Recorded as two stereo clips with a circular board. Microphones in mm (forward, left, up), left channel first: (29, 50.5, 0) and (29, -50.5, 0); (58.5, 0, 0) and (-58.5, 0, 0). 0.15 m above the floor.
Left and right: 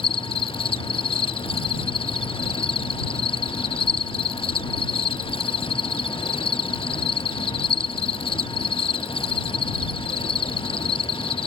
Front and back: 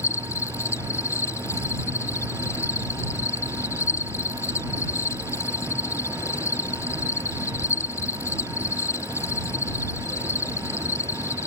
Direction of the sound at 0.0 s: 65° left.